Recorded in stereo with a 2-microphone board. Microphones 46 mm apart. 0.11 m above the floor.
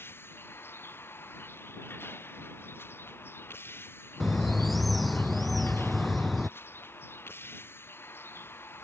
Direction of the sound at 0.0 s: 55° left (ahead or behind).